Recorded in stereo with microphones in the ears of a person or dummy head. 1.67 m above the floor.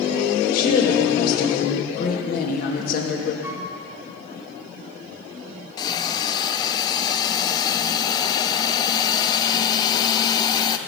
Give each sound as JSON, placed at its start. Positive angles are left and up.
{"t": 0.5, "sound": "a woman speaking", "side_deg": 55, "distance_m": 2.5}
{"t": 3.4, "sound": "a flute", "side_deg": -15, "distance_m": 1.4}
{"t": 5.8, "sound": "a hiss", "side_deg": 25, "distance_m": 0.6}